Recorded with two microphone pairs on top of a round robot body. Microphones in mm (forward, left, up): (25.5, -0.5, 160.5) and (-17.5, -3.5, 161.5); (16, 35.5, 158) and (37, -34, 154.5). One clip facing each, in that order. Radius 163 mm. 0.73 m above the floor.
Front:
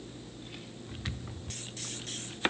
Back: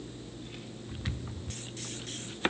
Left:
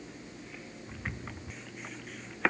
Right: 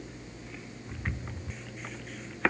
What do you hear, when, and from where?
Only background noise.